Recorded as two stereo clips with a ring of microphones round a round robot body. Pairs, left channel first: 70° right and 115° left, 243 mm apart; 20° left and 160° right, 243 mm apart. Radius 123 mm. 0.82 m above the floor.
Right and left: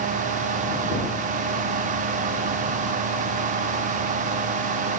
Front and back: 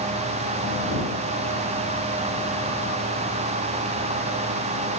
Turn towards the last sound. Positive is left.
No sound to turn to.